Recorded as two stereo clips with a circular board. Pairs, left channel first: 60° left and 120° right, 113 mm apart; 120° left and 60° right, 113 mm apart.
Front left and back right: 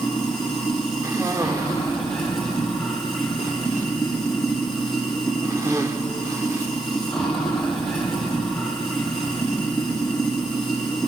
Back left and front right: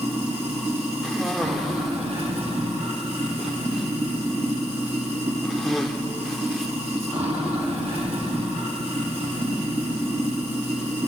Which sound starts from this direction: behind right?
A cough, at 1.0 s.